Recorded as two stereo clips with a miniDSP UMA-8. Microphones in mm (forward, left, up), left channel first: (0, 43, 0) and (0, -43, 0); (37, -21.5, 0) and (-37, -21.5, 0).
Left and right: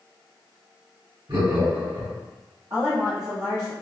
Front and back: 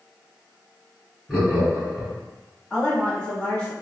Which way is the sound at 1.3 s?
85° right.